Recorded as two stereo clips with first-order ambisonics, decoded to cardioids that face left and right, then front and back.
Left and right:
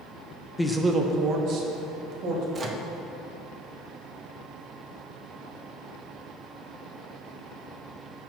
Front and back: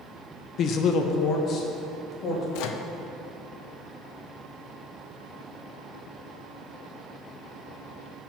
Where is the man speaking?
15° left, 0.5 m; by 2.4 s 60° right, 1.9 m.